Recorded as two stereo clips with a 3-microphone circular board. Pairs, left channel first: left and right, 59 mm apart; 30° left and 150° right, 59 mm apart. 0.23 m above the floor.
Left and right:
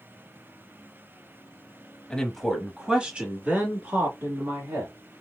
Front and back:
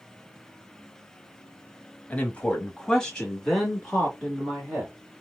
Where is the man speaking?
35° left, 1.0 m; by 4.9 s 65° right, 2.0 m.